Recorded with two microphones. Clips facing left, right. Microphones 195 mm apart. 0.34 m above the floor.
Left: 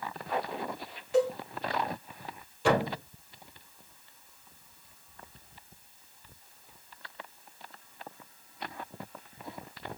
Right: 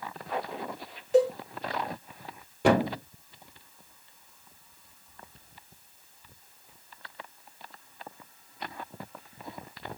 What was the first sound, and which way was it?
A cowbell, 40° right (ahead or behind).